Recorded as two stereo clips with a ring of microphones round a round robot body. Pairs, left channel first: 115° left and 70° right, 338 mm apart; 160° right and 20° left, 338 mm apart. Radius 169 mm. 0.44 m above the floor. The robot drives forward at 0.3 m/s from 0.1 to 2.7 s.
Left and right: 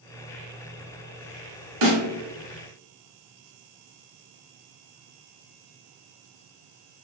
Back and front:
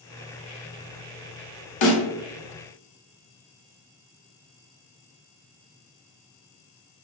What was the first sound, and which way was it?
A snare drum, 120° right.